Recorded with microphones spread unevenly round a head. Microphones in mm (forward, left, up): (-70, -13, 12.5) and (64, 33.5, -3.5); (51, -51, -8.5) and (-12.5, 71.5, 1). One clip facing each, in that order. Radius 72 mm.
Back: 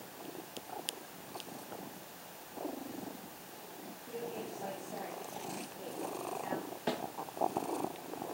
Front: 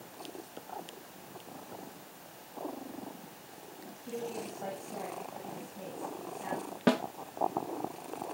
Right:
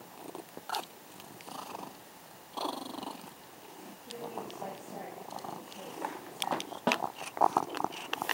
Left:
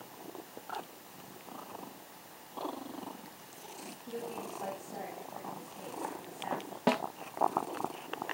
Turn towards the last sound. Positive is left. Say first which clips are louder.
# front 10 dB, left 2 dB
turn(degrees=35)